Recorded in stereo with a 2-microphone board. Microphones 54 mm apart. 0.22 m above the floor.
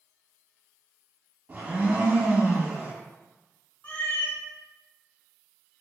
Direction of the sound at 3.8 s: 30° left (ahead or behind).